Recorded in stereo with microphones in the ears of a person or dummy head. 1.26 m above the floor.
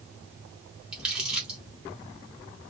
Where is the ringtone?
I don't hear a ringtone.